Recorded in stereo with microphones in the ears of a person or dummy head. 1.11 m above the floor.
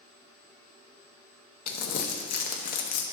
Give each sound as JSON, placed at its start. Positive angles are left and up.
{"t": 1.7, "sound": "crumpling", "side_deg": 55, "distance_m": 0.7}